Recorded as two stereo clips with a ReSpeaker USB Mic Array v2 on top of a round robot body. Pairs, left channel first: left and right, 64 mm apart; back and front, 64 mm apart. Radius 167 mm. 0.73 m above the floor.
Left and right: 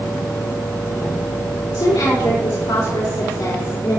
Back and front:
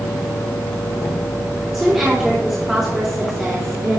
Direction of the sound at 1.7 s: 80° left.